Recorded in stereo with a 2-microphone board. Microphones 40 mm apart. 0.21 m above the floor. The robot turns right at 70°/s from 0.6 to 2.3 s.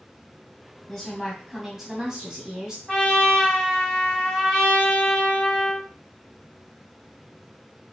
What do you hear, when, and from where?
0.9 s a woman speaking: 15° left (ahead or behind), 1.4 m; by 2.8 s 20° right (ahead or behind), 1.4 m
2.9 s a trumpet: 15° left (ahead or behind), 1.6 m